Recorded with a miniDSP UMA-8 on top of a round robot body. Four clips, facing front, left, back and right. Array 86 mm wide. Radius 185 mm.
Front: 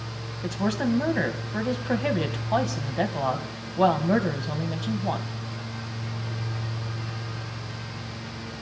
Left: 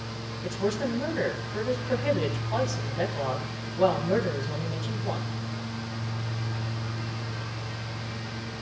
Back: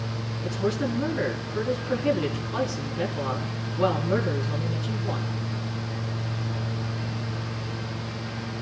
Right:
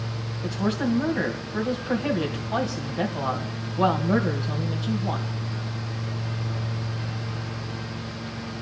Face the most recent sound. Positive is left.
turn(degrees=-10)